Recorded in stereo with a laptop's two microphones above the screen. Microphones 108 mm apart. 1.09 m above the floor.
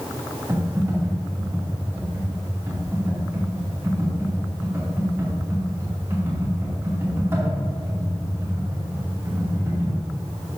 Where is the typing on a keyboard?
25° right (ahead or behind), 2.5 m.